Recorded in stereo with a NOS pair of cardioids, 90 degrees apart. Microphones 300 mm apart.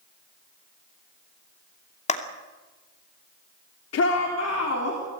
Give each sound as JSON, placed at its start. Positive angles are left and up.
{"t": 2.1, "sound": "a clap", "azimuth_deg": 20, "distance_m": 2.5}
{"t": 3.9, "sound": "a shout", "azimuth_deg": 55, "distance_m": 3.5}